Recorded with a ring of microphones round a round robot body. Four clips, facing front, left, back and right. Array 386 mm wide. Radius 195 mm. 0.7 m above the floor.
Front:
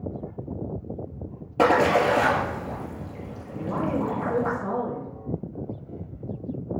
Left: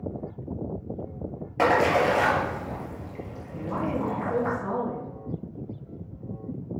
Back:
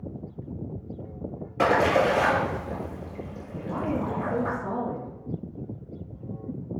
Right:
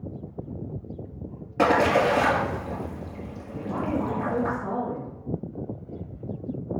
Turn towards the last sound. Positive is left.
turn(degrees=15)